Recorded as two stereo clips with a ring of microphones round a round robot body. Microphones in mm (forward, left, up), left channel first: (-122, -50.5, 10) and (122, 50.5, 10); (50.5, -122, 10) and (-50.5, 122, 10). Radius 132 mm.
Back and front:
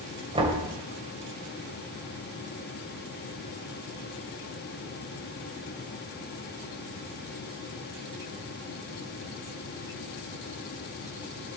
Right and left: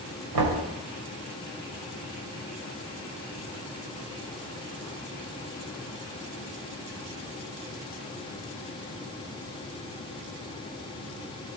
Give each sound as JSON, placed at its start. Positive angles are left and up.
{"t": 0.3, "sound": "knocking", "azimuth_deg": 95, "distance_m": 3.0}